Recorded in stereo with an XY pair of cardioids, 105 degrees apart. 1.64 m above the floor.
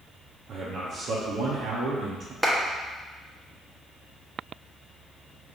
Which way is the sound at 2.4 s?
5° right.